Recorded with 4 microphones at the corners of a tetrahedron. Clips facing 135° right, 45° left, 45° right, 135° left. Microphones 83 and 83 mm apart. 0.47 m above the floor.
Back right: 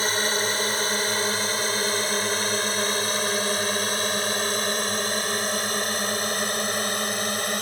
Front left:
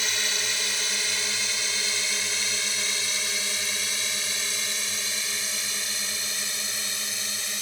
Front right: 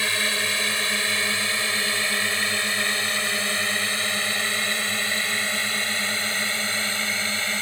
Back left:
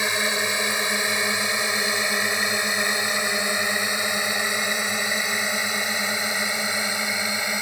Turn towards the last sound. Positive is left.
turn(degrees=-155)